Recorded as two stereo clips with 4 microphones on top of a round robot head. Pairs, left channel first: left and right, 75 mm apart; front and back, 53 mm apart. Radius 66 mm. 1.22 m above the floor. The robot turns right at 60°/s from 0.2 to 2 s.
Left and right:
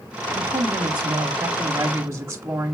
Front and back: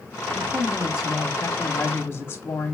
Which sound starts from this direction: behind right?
A woman speaking, at 0.3 s.